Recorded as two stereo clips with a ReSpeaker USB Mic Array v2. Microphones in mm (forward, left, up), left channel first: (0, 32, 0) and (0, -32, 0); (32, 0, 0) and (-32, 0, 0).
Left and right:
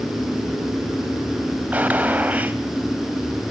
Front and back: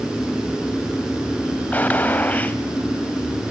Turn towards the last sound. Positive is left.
turn(degrees=-45)